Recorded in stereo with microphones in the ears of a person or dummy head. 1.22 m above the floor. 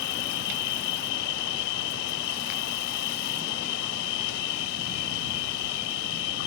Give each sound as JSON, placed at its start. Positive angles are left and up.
{"t": 0.0, "sound": "an insect", "side_deg": 65}